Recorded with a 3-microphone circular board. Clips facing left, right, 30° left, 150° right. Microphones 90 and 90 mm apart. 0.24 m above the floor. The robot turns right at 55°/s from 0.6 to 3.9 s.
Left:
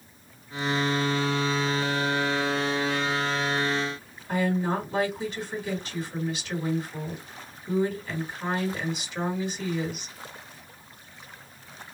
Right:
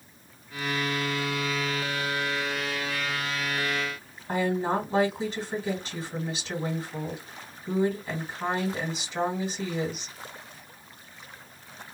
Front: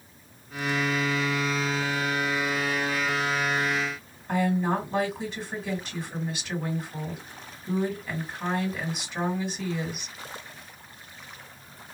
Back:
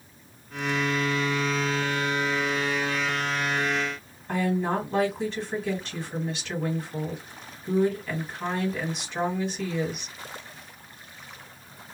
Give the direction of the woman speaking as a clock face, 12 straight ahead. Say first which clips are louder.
Even, front 1 dB; 2 o'clock.